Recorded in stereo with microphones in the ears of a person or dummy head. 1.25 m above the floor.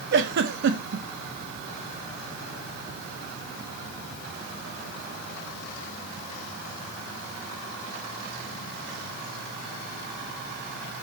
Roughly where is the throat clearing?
No throat clearing in this recording.